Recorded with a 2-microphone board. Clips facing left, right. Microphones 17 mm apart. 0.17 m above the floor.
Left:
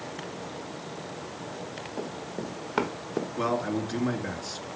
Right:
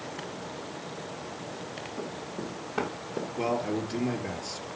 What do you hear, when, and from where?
2.0 s running footsteps: 50° left (ahead or behind), 3.5 m; by 3.3 s 70° left (ahead or behind), 2 m
3.4 s a man speaking: 55° left (ahead or behind), 2.5 m